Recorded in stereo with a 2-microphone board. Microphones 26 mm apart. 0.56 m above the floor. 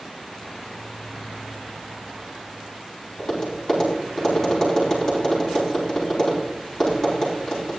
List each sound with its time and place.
3.2 s tapping: 10° left (ahead or behind), 5 m